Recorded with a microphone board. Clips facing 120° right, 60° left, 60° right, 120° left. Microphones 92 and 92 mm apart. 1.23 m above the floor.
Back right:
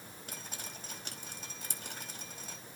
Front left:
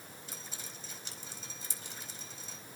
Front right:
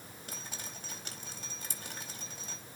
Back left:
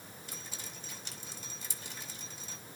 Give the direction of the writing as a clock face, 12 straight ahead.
No writing in this recording.